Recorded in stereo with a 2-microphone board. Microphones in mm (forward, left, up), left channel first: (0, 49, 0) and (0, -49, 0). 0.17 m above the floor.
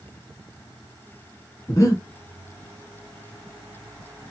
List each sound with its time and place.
1.7 s breathing: 35° left (ahead or behind), 1.1 m